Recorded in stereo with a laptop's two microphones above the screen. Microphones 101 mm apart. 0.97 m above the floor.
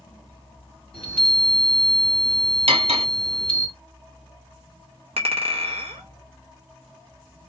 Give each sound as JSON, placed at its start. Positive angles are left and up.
{"t": 0.9, "sound": "a chime", "side_deg": 10, "distance_m": 1.0}
{"t": 2.7, "sound": "cutlery clinking", "side_deg": -85, "distance_m": 0.7}
{"t": 5.2, "sound": "a clink", "side_deg": -80, "distance_m": 0.6}